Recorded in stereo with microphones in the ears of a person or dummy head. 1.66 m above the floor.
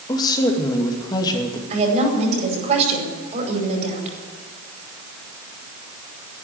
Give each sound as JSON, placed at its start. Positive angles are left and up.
{"t": 0.1, "sound": "a woman speaking", "side_deg": 25, "distance_m": 2.5}
{"t": 1.7, "sound": "a woman speaking", "side_deg": -35, "distance_m": 5.0}